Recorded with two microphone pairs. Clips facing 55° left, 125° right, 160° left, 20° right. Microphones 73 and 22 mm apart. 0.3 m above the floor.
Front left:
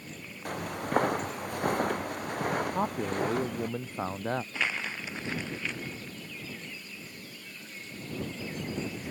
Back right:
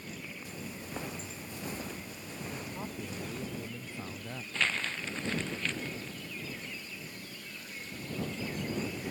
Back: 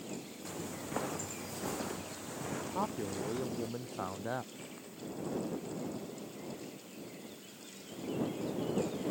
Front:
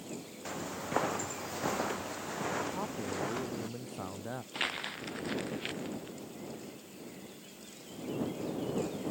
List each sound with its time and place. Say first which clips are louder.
0.5 s footsteps: front left 14 dB, front 5 dB; 35° left
2.7 s a man speaking: front left 10 dB, even; 85° left
4.5 s crumpling: front left 1 dB, front 12 dB; 20° right